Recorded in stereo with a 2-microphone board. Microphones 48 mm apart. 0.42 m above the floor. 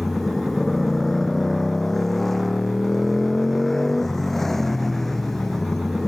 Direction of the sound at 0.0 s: 5° left (ahead or behind).